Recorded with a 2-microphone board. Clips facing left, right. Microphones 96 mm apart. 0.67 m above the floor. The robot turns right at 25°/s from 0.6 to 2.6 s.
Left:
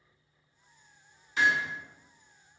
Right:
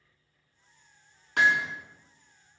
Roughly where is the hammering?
Right.